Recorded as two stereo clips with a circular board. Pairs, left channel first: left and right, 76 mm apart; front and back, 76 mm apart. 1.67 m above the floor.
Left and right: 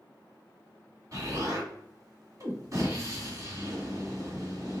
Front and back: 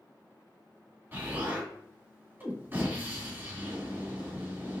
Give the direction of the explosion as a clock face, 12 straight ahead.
4 o'clock.